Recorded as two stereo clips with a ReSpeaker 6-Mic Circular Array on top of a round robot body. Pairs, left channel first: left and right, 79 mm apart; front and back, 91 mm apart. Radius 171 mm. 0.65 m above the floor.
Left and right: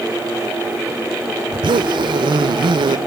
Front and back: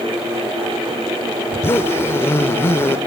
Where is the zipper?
65° right, 0.7 m.